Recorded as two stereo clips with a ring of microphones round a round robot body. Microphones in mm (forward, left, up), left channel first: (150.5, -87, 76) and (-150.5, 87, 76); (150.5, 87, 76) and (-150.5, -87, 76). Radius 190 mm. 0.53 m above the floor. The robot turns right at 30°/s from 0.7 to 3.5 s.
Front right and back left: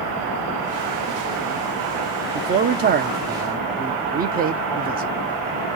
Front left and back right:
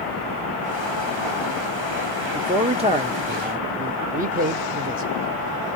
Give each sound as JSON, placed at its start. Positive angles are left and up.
{"t": 2.4, "sound": "a man speaking", "azimuth_deg": 145, "distance_m": 0.7}